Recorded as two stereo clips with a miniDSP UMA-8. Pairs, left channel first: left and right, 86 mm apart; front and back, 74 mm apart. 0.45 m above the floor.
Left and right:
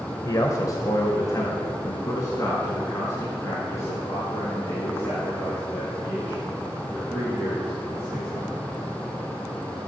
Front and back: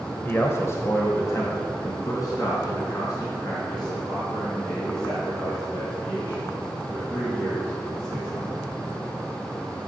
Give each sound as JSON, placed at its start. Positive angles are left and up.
{"t": 0.2, "sound": "a man speaking", "azimuth_deg": 55, "distance_m": 1.3}